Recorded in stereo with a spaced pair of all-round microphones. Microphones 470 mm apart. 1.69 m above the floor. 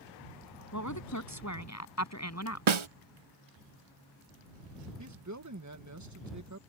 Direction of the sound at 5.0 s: 35° right (ahead or behind).